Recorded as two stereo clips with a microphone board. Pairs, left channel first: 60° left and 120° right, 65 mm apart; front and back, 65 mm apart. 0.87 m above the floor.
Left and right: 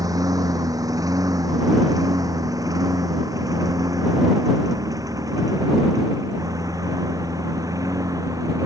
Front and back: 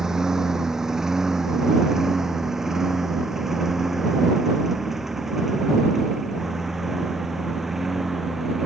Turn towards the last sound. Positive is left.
turn(degrees=-95)